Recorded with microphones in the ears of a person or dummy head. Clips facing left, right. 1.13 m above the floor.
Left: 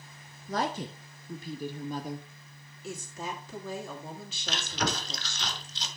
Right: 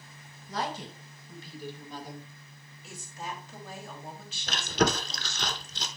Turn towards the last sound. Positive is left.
turn(degrees=-45)  # may be behind; listen again after turning